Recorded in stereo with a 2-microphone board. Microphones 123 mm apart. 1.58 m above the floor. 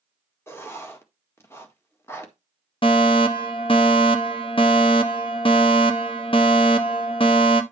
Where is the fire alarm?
45° left (ahead or behind), 1.2 m.